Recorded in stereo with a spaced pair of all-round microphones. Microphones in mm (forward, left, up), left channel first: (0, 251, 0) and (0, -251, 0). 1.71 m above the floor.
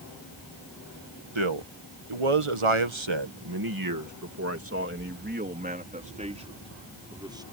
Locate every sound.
1.4 s a man speaking: 65° right (ahead or behind); by 7.4 s 10° right (ahead or behind)